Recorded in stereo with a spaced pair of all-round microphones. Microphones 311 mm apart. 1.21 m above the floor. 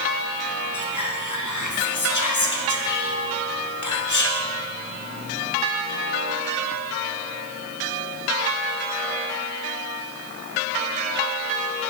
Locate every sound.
0.7 s whispering: 70° left (ahead or behind), 0.9 m